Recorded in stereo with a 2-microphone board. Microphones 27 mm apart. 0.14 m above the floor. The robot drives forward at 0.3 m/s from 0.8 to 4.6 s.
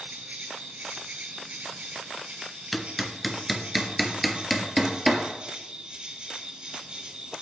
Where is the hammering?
5° left (ahead or behind), 0.6 m.